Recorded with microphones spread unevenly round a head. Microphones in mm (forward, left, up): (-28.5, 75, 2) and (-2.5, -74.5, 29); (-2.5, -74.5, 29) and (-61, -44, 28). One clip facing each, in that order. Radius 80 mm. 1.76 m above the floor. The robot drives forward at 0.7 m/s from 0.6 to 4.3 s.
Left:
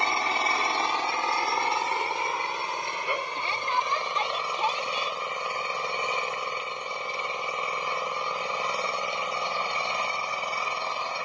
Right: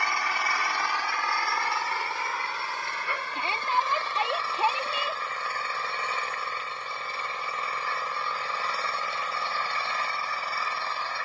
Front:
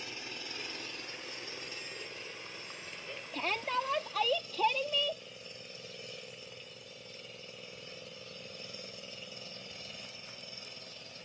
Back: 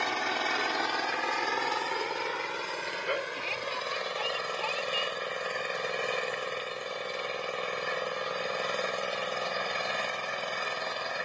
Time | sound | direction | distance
0.0 | an engine running | 170° left | ?
3.3 | a shout | 5° right | ?